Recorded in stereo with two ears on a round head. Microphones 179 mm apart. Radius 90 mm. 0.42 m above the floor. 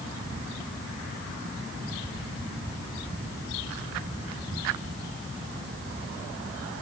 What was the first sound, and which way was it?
Only background noise.